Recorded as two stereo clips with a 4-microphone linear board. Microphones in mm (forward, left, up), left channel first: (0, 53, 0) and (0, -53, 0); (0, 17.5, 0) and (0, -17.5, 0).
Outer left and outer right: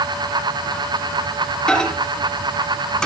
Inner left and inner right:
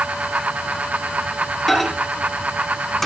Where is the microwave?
5° left (ahead or behind), 1.7 m.